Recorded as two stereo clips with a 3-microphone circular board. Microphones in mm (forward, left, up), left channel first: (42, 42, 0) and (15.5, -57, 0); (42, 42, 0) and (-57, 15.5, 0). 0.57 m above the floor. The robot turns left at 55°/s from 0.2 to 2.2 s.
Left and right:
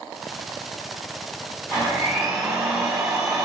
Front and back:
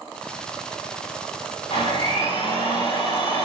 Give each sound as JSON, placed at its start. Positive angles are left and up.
{"t": 1.7, "sound": "a blender", "azimuth_deg": 10, "distance_m": 4.5}